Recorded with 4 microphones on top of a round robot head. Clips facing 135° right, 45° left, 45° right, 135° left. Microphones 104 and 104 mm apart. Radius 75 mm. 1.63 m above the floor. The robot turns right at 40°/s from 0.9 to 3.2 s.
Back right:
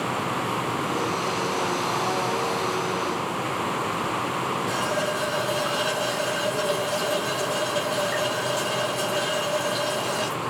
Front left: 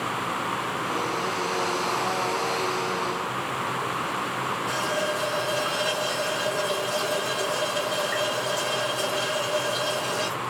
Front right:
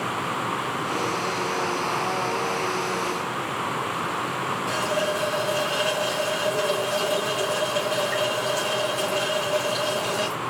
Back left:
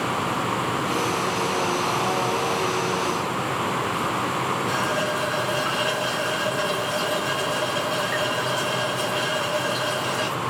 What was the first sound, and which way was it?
A running tap, 55° right.